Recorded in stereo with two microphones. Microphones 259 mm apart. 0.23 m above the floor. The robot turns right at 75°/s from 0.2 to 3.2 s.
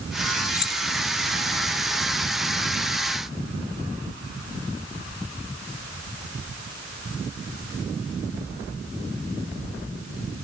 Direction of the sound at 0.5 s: 40° left (ahead or behind).